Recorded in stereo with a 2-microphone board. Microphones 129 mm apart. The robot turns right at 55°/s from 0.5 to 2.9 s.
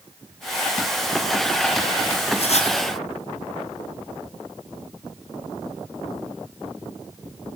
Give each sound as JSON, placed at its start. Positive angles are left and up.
{"t": 2.4, "sound": "writing", "side_deg": 50, "distance_m": 4.0}